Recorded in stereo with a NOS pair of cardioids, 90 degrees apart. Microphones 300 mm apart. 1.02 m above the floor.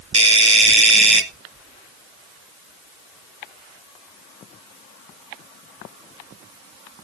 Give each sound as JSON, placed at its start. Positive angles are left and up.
{"t": 0.1, "sound": "a doorbell", "azimuth_deg": -20, "distance_m": 1.9}